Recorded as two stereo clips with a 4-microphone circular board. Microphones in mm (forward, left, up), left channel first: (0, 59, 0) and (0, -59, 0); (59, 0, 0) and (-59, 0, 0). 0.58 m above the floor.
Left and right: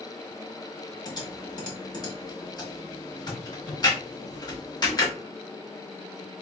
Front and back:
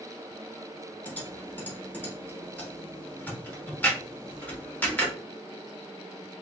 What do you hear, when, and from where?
1.1 s typing on a keyboard: 70° left, 1.3 m